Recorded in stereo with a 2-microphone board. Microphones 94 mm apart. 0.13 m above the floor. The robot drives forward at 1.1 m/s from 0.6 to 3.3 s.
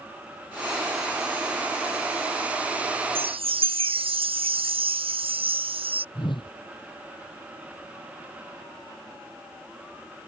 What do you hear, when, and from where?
3.1 s a chime: 80° right; by 6.0 s 85° right
6.2 s a whoosh: 60° left (ahead or behind)